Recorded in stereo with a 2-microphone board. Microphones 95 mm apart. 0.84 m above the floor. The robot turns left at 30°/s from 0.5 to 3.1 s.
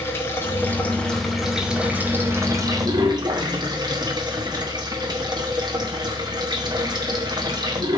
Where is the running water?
25° left, 1.9 m; by 8.0 s 50° right, 1.9 m.